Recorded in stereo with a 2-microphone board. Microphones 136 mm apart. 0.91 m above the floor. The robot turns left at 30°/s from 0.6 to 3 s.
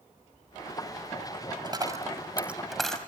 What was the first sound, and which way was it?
A dropped coin, 35° right (ahead or behind).